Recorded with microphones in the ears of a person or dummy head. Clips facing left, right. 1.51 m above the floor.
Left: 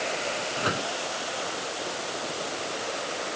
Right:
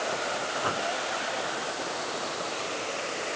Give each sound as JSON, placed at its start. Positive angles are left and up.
{"t": 0.6, "sound": "a microwave", "side_deg": 20}